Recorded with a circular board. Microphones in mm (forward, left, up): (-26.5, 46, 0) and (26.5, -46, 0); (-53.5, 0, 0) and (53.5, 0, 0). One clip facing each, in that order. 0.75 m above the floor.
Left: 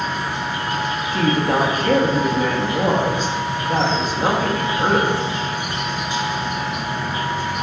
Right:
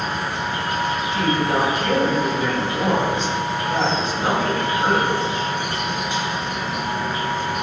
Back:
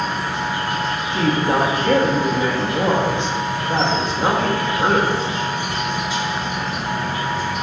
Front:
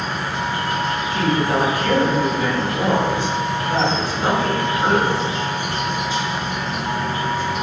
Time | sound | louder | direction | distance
0.0 | an insect | left 1 dB, back 1 dB | 40° right | 1.2 m
1.1 | a woman speaking | left 3 dB, back 2 dB | 115° left | 0.8 m